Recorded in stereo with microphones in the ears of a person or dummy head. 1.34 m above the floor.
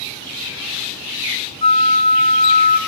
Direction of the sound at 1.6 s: 35° left (ahead or behind).